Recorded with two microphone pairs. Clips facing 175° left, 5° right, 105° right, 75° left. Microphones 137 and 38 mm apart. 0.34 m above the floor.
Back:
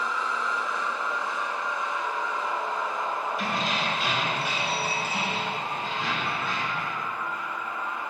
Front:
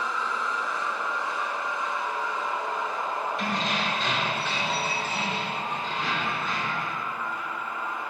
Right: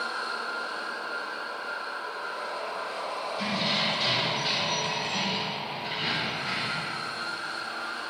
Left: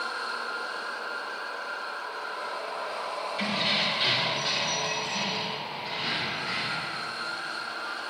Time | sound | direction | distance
3.4 | keys jangling | 90° left | 1.5 m